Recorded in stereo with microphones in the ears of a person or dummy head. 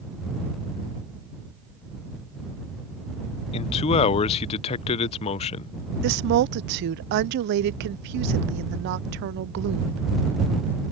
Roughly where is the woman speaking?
Right.